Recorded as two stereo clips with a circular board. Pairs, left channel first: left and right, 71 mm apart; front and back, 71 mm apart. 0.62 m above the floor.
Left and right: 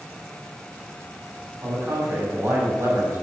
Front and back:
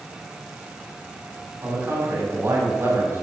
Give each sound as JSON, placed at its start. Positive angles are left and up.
{"t": 1.6, "sound": "a man speaking", "azimuth_deg": -140, "distance_m": 4.0}